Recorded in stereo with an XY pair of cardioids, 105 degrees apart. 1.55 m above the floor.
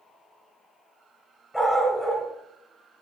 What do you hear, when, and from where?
1.5 s a dog barking: 5° left, 4.5 m